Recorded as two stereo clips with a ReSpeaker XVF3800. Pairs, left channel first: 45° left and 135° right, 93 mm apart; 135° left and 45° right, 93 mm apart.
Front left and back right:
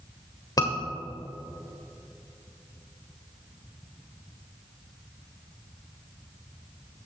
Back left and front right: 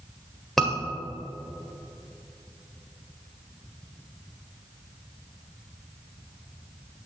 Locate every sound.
0.6 s a scream: 50° left, 1.5 m